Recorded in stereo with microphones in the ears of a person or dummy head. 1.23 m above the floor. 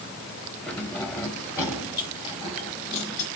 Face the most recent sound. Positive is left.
turn(degrees=45)  # may be behind; listen again after turning